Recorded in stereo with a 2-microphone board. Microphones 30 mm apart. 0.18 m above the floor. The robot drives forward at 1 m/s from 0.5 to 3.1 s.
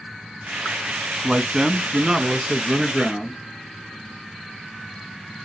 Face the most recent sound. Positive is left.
turn(degrees=-10)  # may be behind; listen again after turning